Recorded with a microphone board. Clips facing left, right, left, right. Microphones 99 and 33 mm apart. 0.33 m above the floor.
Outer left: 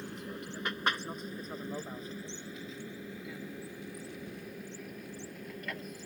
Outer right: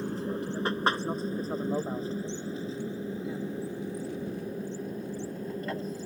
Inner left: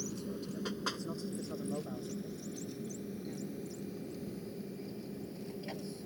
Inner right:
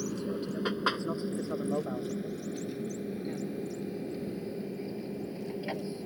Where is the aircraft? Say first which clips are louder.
Outer right 10 dB, inner right 7 dB; 30° right (ahead or behind).